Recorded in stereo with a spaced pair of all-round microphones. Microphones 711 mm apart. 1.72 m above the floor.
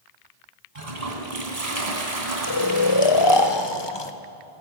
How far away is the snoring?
About 0.8 m.